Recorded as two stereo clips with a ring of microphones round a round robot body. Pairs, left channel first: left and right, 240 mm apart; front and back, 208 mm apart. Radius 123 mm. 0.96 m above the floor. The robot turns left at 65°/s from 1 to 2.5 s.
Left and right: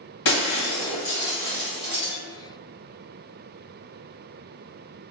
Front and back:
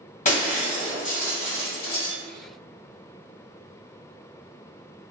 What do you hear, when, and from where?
0.2 s breaking glass: 55° left, 1.2 m; by 2.1 s 20° right, 1.2 m